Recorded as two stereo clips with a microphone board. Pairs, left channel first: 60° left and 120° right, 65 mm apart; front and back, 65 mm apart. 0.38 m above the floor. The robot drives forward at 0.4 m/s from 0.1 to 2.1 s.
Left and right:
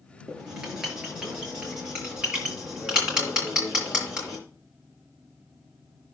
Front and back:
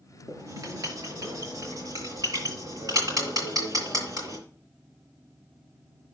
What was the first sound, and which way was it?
Writing, 160° left.